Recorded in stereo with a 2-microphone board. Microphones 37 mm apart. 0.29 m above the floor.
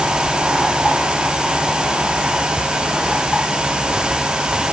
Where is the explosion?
I don't hear an explosion.